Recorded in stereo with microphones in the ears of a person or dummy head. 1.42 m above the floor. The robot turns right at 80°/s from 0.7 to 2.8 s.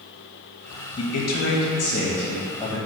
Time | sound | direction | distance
1.0 | a man speaking | 30° left | 0.7 m